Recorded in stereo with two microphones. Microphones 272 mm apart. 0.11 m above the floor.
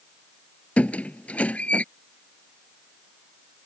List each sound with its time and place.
0.8 s a squeak: 5° left (ahead or behind)